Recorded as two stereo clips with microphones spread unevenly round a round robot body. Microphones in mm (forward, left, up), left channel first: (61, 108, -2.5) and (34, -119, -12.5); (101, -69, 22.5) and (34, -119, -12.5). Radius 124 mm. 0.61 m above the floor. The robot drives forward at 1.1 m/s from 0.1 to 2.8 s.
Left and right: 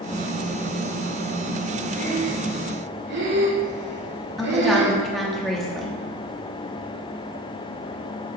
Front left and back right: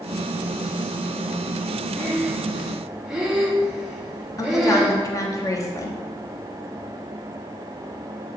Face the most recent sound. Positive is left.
turn(degrees=-10)